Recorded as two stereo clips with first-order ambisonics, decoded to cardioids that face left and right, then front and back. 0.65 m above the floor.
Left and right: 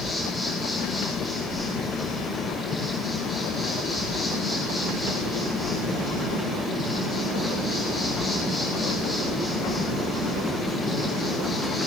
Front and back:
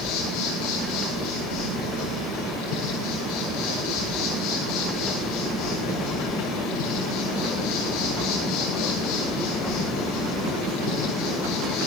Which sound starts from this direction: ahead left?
An insect, at 0.0 s.